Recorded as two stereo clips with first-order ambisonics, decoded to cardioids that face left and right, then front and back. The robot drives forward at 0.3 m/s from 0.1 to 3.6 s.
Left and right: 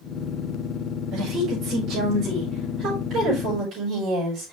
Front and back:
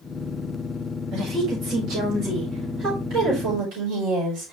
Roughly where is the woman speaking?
Behind right.